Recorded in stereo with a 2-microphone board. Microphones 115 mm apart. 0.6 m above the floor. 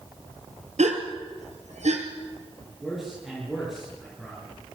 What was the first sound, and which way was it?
A gasp, 85° right.